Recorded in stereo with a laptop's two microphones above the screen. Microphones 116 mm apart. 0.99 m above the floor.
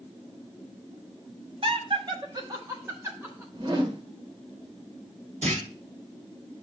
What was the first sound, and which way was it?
Laughter, 55° right (ahead or behind).